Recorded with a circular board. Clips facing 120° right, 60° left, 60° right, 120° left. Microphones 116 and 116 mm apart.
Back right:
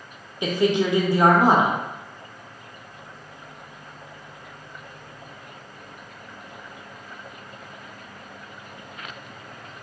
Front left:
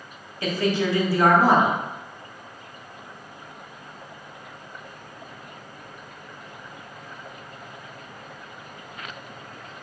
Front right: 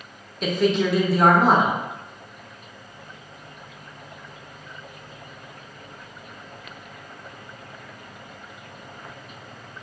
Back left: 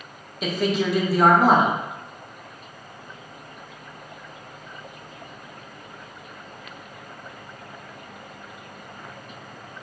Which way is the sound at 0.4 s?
155° right.